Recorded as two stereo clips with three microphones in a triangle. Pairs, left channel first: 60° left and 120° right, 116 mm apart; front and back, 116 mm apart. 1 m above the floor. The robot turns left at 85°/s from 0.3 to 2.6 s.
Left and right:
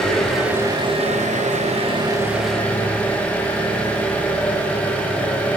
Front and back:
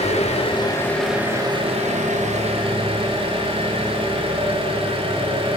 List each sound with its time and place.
0.0 s an engine running: 25° right, 3.5 m; by 5.6 s 140° left, 3.5 m